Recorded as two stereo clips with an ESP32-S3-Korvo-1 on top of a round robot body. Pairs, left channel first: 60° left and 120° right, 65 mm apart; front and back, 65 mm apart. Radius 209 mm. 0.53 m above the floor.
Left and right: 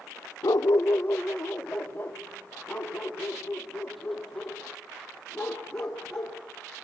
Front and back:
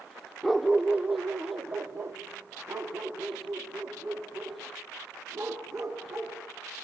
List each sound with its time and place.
0.4 s a dog barking: 90° left, 0.7 m; by 6.4 s 140° left, 5 m